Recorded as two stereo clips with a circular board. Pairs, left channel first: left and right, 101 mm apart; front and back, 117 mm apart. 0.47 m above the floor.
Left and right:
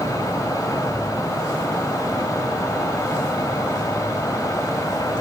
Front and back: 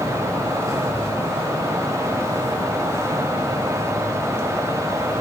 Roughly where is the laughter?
I don't hear laughter.